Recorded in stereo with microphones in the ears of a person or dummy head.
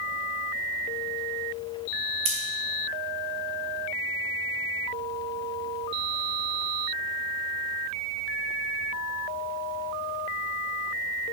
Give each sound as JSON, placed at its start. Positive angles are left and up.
{"t": 2.2, "sound": "scissors", "side_deg": -30, "distance_m": 0.9}